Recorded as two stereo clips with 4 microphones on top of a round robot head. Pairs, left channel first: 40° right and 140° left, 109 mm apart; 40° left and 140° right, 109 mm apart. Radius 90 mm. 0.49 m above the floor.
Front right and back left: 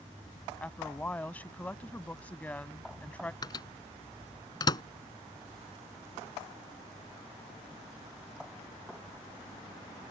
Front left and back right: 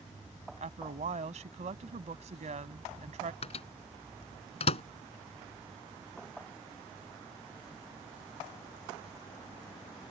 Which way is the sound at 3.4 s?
10° left.